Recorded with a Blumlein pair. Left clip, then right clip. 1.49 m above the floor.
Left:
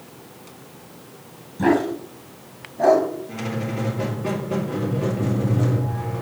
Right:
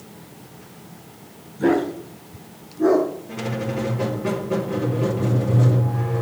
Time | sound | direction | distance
1.6 | a dog barking | 65° left | 4 m
3.3 | a squeak | 5° right | 2.5 m